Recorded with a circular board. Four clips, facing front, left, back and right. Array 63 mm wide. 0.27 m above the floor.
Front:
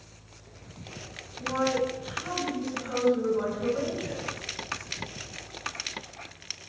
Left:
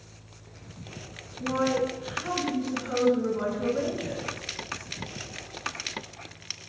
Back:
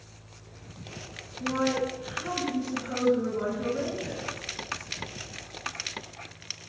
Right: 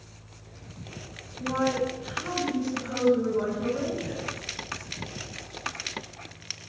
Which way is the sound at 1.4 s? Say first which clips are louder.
Even, even; 65° left.